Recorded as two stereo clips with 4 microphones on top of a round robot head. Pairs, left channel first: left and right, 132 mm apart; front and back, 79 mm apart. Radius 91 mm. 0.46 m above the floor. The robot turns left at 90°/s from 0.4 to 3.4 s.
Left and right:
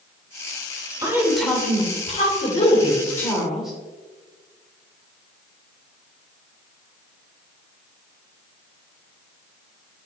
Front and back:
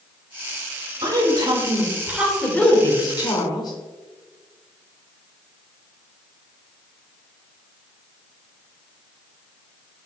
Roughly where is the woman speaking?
Behind right.